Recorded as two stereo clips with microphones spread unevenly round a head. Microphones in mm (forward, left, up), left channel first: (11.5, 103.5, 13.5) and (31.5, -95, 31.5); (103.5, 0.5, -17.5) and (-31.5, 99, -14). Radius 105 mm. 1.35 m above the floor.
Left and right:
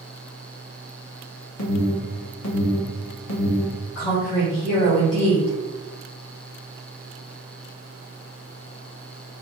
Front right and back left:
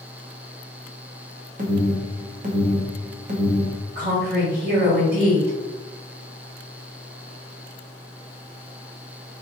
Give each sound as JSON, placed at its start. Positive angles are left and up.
{"t": 1.6, "sound": "an alarm", "azimuth_deg": 100, "distance_m": 0.9}
{"t": 4.0, "sound": "a woman speaking", "azimuth_deg": 115, "distance_m": 1.9}